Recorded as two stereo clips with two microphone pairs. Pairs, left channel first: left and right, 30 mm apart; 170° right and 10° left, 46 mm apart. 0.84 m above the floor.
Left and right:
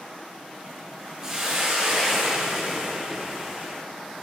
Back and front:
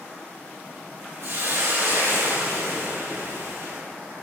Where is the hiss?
20° right, 5.5 m.